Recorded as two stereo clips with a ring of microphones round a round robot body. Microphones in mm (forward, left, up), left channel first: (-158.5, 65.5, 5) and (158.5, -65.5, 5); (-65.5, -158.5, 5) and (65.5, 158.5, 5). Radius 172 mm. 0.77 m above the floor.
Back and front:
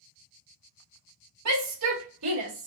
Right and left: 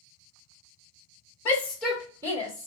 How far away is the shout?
About 1.4 m.